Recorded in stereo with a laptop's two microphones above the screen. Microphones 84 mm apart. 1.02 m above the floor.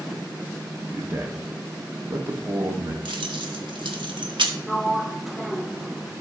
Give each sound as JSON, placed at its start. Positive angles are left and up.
{"t": 0.9, "sound": "a man speaking", "side_deg": -30, "distance_m": 1.5}
{"t": 3.0, "sound": "keys jangling", "side_deg": -85, "distance_m": 1.1}
{"t": 4.7, "sound": "a sliding door", "side_deg": 0, "distance_m": 0.6}